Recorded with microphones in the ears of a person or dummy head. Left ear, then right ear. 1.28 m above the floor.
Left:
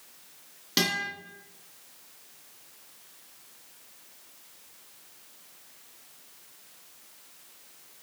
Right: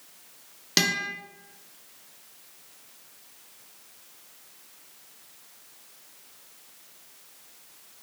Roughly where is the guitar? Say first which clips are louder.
Right 3 dB; right.